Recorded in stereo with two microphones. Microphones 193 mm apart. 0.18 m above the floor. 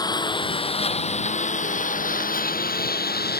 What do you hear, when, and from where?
0.0 s a lawn mower: 20° left (ahead or behind); by 3.4 s 55° left (ahead or behind)